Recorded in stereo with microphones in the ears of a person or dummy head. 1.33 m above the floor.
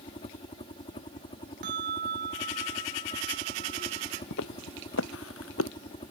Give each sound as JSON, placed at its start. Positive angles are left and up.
{"t": 0.0, "sound": "a helicopter", "side_deg": 30}
{"t": 1.6, "sound": "a bell", "side_deg": -60}
{"t": 4.3, "sound": "footsteps", "side_deg": 75}